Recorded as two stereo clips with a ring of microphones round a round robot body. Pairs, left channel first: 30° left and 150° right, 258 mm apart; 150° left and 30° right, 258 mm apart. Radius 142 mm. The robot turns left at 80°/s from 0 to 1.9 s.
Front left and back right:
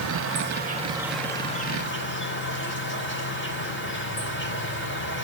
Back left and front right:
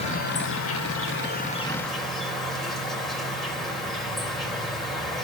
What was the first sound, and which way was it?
An insect, 145° right.